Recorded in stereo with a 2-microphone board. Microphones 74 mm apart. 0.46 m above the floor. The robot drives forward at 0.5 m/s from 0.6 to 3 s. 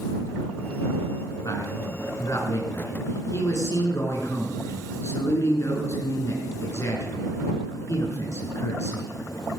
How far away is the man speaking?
About 4.5 m.